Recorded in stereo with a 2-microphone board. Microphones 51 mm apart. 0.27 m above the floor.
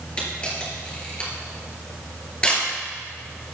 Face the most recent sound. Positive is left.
turn(degrees=15)  # may be behind; listen again after turning